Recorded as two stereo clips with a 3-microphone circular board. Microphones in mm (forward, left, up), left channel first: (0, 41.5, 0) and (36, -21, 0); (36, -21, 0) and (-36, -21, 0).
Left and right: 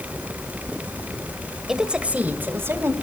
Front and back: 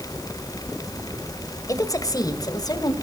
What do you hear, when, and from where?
1.7 s a woman speaking: 20° left, 1.8 m; by 2.9 s 10° right, 2.5 m